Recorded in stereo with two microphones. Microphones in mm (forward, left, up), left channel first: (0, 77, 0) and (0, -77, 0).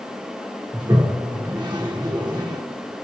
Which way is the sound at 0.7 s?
30° right (ahead or behind).